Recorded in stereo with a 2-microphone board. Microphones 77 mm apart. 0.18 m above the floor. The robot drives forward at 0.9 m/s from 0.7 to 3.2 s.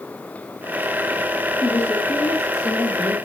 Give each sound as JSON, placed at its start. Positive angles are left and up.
{"t": 1.6, "sound": "a woman speaking", "side_deg": 50, "distance_m": 3.0}